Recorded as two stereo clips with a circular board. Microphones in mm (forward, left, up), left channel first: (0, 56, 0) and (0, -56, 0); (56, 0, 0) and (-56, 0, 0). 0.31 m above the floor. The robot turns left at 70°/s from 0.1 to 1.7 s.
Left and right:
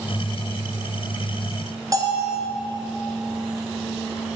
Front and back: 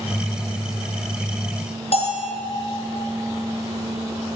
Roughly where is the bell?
Ahead right.